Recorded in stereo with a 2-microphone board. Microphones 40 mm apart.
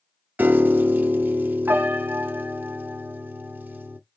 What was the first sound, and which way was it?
A piano, 55° right (ahead or behind).